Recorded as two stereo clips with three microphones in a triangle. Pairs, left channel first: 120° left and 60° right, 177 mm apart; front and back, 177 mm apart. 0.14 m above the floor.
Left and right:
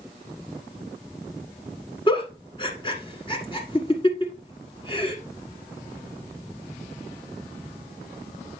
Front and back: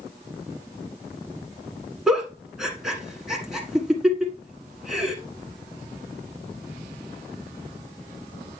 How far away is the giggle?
About 1.4 m.